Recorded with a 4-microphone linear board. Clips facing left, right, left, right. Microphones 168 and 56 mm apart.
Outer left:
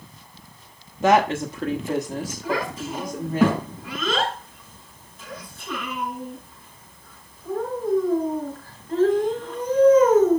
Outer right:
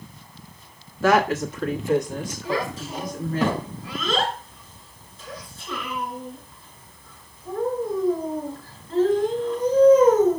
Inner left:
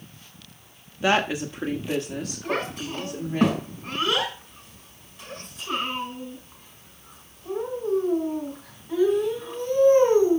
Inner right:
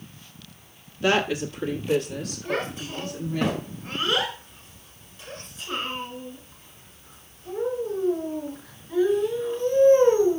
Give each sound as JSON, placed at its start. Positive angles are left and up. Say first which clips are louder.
{"t": 1.0, "sound": "a woman speaking", "louder": "outer left 1 dB, even", "side_deg": 20, "distance_m": 1.0}
{"t": 2.4, "sound": "a child speaking", "louder": "even, even", "side_deg": 70, "distance_m": 6.0}